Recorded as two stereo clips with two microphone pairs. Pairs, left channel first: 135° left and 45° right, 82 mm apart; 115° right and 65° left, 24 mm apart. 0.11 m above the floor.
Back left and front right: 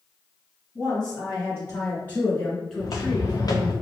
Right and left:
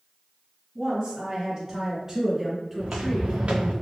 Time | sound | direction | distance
0.8 | a woman speaking | 115° left | 1.7 m
2.8 | footsteps | 95° left | 0.9 m